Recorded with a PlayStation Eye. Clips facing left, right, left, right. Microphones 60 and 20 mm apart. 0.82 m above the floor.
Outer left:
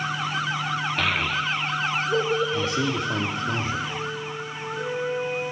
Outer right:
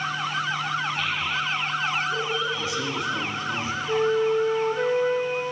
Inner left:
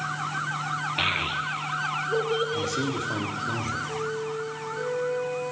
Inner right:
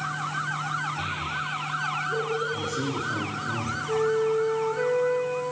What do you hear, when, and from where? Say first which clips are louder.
1.0 s a child speaking: outer left 2 dB, inner left 4 dB; 85° left, 0.8 m; by 3.5 s 45° left (ahead or behind), 3 m
2.5 s a man speaking: outer left 3 dB, inner left 1 dB; 50° left (ahead or behind), 1.9 m
3.9 s a flute: outer right 10 dB, inner right 7 dB; 85° right, 1.7 m